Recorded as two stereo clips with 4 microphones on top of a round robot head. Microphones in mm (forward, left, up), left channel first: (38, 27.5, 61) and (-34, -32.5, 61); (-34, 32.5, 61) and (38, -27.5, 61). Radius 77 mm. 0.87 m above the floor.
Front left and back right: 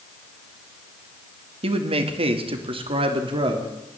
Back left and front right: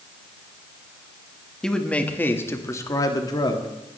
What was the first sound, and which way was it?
A man speaking, 135° right.